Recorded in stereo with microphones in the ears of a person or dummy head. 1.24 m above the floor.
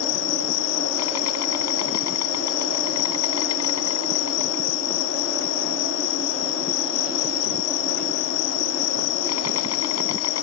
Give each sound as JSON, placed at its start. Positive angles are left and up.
{"t": 0.0, "sound": "an insect", "side_deg": 85}